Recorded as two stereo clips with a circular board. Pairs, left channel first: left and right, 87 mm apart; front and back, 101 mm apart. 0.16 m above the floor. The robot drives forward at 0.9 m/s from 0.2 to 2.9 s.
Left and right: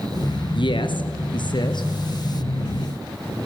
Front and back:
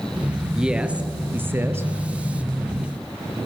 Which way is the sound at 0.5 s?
95° left.